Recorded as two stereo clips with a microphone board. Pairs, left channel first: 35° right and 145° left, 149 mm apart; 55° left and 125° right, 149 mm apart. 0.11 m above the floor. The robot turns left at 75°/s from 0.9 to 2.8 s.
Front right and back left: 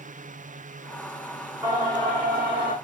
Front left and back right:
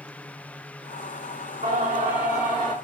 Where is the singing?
140° right, 3 m; by 2.7 s 135° left, 3 m.